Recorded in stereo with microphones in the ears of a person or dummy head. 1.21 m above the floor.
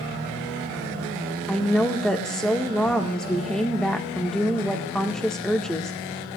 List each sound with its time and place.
1.5 s a woman speaking: centre (ahead or behind), 1.6 m